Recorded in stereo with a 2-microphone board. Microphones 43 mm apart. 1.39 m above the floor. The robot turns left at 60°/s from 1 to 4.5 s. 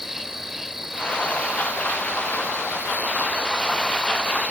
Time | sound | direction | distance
0.0 | an insect | 10° right | ?